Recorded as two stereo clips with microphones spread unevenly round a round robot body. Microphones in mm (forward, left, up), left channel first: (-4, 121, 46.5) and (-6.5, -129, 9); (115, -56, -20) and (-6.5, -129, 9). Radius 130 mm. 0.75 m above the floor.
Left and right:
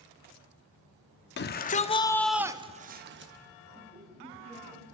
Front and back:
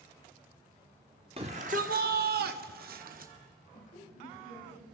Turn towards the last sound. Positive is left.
turn(degrees=0)